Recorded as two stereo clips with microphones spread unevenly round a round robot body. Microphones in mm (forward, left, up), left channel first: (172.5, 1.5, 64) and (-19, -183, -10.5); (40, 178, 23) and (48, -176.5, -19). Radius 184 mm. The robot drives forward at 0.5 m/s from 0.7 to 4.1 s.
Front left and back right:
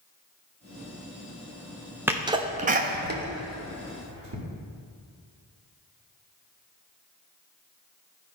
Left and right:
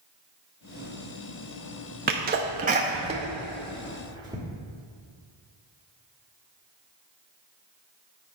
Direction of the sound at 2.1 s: 90° right.